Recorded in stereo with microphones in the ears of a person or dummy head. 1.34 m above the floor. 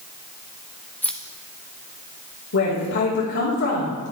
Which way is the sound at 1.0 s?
10° left (ahead or behind).